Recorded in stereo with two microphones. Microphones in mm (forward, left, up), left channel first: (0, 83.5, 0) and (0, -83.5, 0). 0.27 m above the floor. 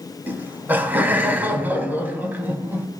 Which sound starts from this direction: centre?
Laughter, at 0.3 s.